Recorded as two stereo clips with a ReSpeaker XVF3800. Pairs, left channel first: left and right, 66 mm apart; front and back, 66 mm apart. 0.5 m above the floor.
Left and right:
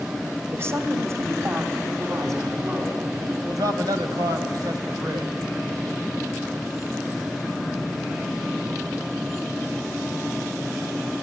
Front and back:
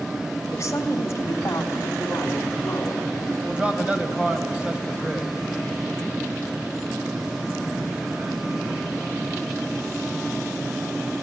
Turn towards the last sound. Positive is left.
turn(degrees=-105)